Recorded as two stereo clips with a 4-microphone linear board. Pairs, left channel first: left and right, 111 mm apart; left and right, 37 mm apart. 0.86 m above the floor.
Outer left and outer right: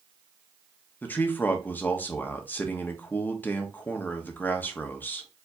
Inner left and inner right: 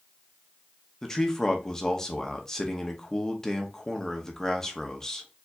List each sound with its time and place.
1.0 s a man speaking: 15° left (ahead or behind), 0.8 m